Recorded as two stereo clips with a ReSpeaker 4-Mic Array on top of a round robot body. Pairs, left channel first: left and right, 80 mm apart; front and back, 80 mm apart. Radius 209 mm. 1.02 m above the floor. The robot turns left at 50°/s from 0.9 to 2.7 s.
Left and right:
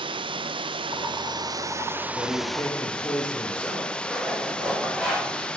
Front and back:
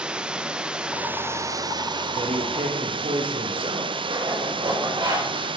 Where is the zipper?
Straight behind, 7.5 m.